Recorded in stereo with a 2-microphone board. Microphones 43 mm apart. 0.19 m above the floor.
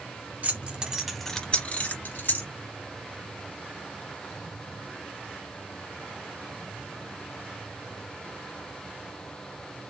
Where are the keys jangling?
40° right (ahead or behind), 1.2 m; by 2.5 s 60° left (ahead or behind), 1.6 m.